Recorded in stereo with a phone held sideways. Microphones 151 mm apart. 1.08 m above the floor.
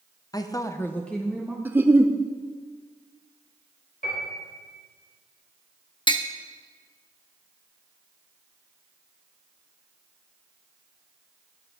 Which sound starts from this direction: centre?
A giggle, at 1.6 s.